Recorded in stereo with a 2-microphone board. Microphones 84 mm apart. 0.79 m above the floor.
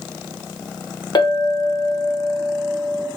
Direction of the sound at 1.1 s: 55° left (ahead or behind).